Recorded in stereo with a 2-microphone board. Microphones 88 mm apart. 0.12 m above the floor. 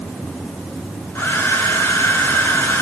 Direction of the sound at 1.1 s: 25° left (ahead or behind).